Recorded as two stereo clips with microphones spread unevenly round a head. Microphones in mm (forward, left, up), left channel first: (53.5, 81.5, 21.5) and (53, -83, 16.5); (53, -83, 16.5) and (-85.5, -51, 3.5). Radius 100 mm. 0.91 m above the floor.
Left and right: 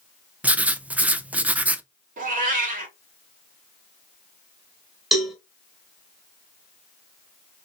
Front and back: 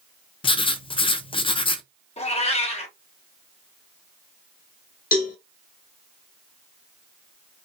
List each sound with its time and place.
0.4 s writing: 20° right, 0.6 m
2.2 s a cat meowing: 55° right, 1.7 m
5.1 s a cowbell: straight ahead, 2 m